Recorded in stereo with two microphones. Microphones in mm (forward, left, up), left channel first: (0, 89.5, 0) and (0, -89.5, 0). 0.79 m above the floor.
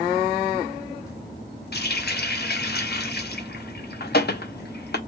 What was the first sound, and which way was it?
A running tap, 65° left (ahead or behind).